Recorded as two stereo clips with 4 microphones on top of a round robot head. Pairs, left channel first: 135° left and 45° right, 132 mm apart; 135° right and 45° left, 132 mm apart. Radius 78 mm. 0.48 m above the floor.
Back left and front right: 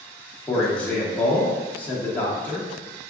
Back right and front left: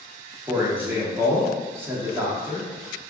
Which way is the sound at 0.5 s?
80° left.